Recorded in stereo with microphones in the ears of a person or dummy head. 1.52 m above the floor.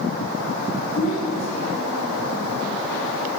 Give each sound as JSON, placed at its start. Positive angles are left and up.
{"t": 0.9, "sound": "a child speaking", "side_deg": 80, "distance_m": 6.5}